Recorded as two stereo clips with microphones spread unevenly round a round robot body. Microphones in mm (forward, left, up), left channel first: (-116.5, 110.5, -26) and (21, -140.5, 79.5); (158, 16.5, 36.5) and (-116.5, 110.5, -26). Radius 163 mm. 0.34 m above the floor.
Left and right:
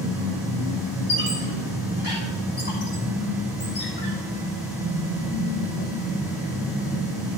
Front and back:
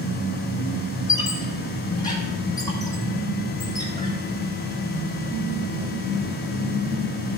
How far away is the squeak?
About 3 m.